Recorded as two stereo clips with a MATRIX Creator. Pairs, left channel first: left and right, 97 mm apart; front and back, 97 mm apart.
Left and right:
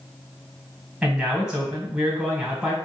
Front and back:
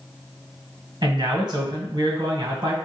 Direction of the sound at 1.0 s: 170° right.